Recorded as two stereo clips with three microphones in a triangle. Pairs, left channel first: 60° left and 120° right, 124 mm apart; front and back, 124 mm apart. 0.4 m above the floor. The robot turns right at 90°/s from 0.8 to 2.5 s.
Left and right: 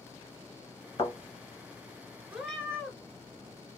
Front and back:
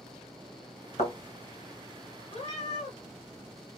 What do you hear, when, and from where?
1.0 s a thud: 20° left, 1.8 m; by 1.1 s 35° left, 1.8 m
2.3 s a cat meowing: 45° right, 0.8 m; by 3.0 s 25° right, 0.8 m